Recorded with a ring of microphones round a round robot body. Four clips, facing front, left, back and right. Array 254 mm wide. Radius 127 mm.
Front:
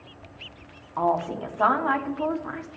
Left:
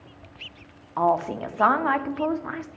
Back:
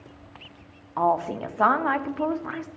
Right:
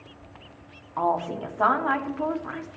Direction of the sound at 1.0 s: 130° left.